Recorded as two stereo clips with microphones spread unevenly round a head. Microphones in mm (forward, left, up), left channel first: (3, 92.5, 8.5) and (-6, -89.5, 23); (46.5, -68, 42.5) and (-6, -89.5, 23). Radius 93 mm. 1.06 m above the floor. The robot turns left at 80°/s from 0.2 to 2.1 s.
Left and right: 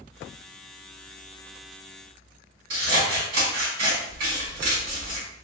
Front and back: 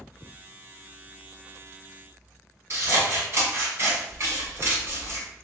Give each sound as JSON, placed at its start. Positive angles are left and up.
{"t": 2.7, "sound": "scissors", "azimuth_deg": -115, "distance_m": 2.0}